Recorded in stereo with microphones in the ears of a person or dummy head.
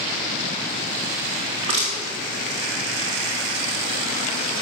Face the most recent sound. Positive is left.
turn(degrees=-30)  # may be behind; listen again after turning